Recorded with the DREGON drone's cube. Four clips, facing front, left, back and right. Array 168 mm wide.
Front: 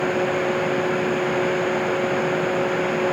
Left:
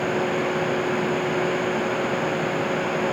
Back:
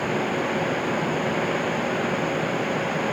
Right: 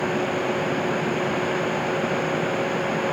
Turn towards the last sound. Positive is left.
No sound to turn to.